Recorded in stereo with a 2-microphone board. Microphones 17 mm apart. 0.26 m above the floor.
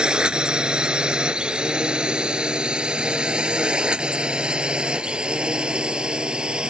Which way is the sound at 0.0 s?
65° right (ahead or behind).